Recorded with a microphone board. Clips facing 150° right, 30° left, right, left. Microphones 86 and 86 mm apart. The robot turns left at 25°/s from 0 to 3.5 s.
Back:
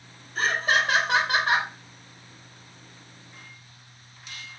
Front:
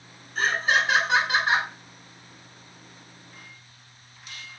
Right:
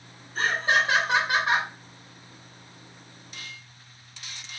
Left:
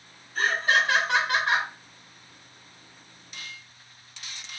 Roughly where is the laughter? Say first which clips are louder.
Front 1 dB, even; behind right.